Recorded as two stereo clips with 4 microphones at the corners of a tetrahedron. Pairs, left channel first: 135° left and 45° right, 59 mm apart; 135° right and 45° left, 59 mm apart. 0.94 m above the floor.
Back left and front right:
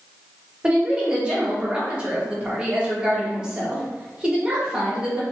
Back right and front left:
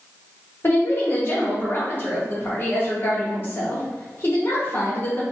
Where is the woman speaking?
110° right, 1.0 m.